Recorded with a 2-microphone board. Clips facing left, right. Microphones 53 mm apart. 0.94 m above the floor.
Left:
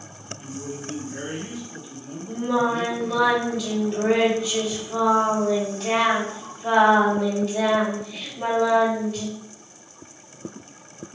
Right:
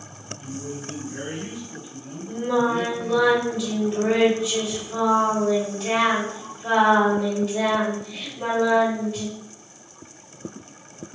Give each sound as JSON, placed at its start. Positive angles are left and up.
{"t": 0.4, "sound": "a man speaking", "side_deg": 20, "distance_m": 1.4}
{"t": 2.3, "sound": "singing", "side_deg": -5, "distance_m": 1.9}